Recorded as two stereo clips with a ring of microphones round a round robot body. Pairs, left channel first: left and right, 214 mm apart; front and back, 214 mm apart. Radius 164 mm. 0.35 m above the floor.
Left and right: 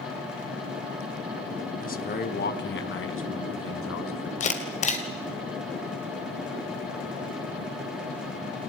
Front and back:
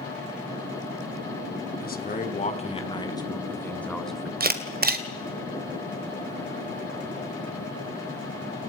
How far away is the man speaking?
About 3.5 m.